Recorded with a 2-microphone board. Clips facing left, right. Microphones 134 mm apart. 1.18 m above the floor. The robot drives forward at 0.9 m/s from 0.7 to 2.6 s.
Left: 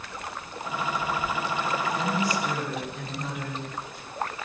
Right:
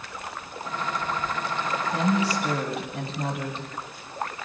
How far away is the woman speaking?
About 7 m.